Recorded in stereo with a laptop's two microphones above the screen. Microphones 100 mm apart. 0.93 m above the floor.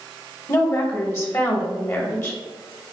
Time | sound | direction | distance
0.5 | a woman speaking | 30° left (ahead or behind) | 0.9 m